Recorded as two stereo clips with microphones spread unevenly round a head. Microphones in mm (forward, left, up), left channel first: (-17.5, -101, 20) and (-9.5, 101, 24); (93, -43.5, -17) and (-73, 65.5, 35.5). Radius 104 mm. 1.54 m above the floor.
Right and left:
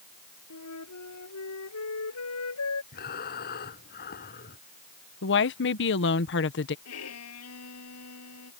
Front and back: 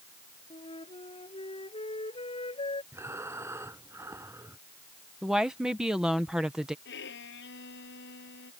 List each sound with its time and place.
0.5 s a flute: 100° right
2.9 s breathing: 135° right
5.2 s a woman speaking: 125° right
6.8 s a violin: 70° right